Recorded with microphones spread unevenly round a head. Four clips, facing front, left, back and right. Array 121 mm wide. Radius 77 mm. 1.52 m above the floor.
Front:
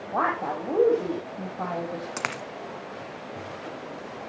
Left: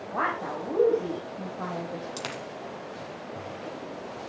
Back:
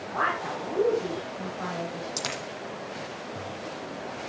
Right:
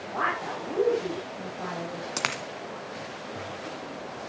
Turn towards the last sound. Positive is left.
turn(degrees=-55)